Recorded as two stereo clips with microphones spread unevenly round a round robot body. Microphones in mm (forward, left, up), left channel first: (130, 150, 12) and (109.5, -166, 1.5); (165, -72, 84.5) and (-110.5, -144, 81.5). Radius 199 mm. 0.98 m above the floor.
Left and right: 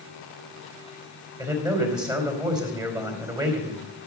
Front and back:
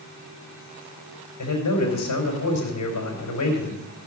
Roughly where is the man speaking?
Ahead.